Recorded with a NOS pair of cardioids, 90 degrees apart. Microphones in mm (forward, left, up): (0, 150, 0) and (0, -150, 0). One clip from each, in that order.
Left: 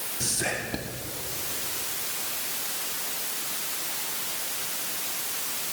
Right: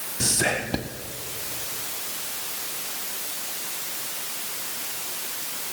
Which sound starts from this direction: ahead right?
Whispering, at 0.2 s.